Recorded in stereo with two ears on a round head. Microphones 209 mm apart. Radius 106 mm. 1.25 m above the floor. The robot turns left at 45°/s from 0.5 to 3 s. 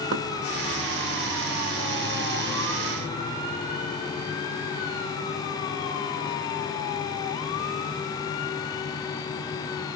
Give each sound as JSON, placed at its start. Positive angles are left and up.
{"t": 0.1, "sound": "knocking", "side_deg": -55, "distance_m": 1.0}